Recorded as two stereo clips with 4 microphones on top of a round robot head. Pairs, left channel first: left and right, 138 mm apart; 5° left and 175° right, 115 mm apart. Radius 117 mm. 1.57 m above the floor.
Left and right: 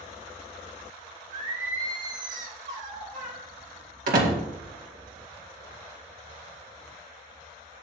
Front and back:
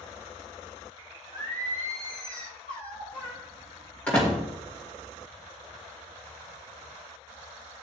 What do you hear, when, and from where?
1.3 s singing: 60° right, 3 m
4.1 s a door slam: 75° right, 2 m